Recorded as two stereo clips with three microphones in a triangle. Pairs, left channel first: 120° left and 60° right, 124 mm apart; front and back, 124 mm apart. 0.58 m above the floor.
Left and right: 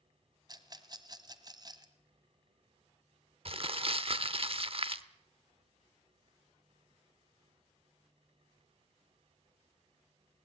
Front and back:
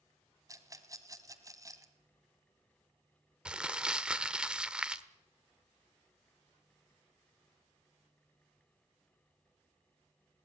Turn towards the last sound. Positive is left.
turn(degrees=-100)